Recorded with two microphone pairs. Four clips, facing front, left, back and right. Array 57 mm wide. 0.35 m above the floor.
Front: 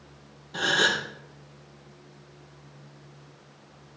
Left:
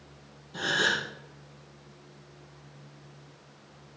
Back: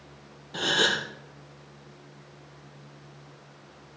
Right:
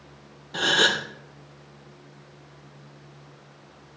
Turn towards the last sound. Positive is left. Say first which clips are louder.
# right 5 dB, front 1 dB
turn(degrees=-95)